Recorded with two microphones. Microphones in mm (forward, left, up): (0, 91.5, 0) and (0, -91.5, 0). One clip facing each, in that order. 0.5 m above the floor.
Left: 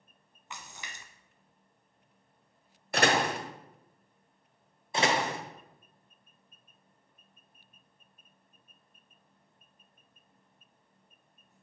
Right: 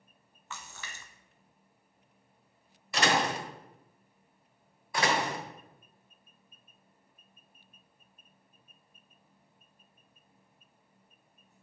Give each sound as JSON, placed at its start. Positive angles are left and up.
{"t": 0.5, "sound": "a splash", "side_deg": 15, "distance_m": 0.8}
{"t": 2.9, "sound": "a door slam", "side_deg": 55, "distance_m": 1.1}
{"t": 4.9, "sound": "a door slam", "side_deg": 25, "distance_m": 1.3}